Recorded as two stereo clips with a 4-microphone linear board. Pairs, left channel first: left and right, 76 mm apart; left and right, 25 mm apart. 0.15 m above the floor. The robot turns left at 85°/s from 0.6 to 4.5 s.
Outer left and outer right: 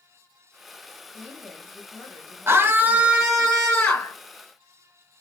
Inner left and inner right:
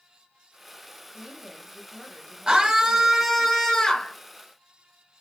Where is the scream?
30° right (ahead or behind), 1.3 m; by 4.1 s 20° left (ahead or behind), 1.3 m.